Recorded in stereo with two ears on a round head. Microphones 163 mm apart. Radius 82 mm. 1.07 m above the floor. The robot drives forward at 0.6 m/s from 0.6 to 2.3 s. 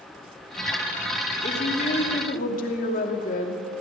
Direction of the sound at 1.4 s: 40° left (ahead or behind).